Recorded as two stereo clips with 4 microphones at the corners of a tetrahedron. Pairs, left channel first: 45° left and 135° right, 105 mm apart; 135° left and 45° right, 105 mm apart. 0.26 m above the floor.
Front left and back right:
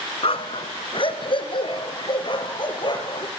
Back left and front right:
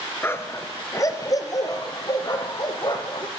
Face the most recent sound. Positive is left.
turn(degrees=90)